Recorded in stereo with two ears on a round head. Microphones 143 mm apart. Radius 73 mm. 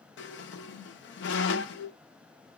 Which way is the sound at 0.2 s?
80° left.